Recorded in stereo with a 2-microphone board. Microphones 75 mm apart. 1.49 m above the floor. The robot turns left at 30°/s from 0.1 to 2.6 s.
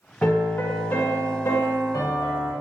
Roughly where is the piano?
Behind.